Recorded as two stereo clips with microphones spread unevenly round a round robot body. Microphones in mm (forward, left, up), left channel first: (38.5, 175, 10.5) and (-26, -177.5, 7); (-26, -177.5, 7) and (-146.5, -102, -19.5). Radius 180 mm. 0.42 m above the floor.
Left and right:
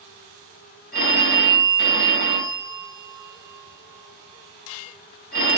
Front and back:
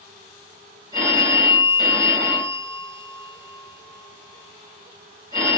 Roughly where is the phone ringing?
Behind left.